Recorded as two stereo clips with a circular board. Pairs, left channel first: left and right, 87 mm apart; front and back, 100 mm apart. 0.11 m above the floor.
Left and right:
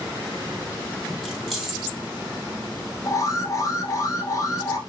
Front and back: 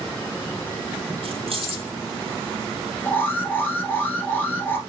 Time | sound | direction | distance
1.2 | keys jangling | straight behind | 2.5 m
3.0 | an alarm | 60° left | 1.4 m